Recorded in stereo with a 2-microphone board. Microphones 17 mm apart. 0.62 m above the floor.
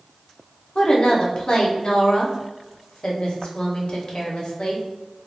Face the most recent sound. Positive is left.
turn(degrees=50)  # may be behind; listen again after turning